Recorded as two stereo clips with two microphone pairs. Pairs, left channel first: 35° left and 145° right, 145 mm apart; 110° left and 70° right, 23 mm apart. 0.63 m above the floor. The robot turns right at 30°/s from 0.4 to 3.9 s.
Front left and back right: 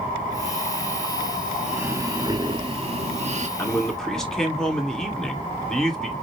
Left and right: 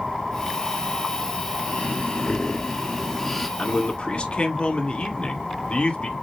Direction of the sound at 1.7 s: 140° left.